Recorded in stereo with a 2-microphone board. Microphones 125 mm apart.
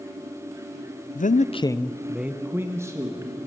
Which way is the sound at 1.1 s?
90° left.